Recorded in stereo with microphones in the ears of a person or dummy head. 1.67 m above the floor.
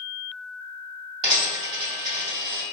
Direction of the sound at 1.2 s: 25° right (ahead or behind).